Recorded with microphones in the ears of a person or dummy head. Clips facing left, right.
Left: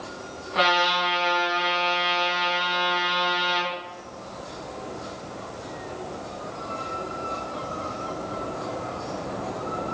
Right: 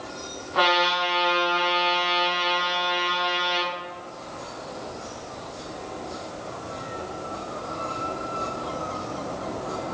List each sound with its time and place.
0.6 s a trumpet: 35° left (ahead or behind), 3.5 m